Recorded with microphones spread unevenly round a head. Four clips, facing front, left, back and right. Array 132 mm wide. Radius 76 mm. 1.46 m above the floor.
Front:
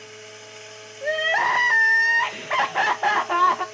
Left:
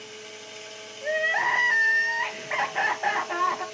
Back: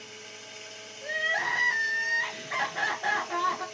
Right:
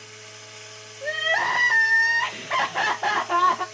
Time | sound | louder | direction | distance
0.0 | running water | left 3 dB, front 5 dB | 130° left | 1.1 m
1.0 | crying | even, front 9 dB | 15° right | 1.3 m